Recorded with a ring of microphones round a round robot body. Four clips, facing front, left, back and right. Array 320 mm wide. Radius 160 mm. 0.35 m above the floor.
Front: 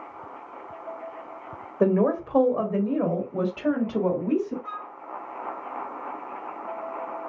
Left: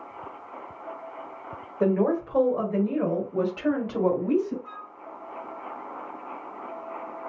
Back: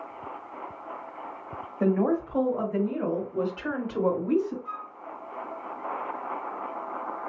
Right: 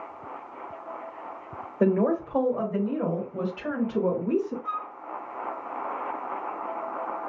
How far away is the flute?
About 0.6 m.